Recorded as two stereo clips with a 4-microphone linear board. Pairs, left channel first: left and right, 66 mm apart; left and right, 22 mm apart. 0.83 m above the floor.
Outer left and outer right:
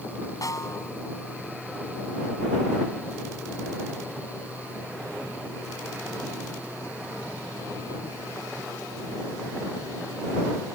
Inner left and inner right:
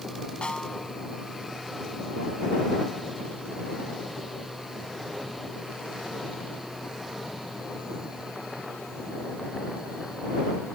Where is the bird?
No bird in this recording.